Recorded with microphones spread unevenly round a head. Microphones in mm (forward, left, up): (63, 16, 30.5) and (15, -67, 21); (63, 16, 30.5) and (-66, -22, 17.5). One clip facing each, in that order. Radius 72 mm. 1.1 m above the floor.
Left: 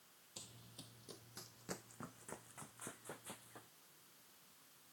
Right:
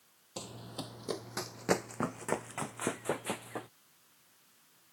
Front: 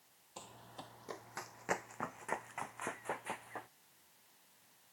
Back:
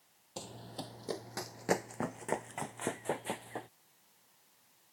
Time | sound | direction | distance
0.4 | running footsteps | 120° right | ?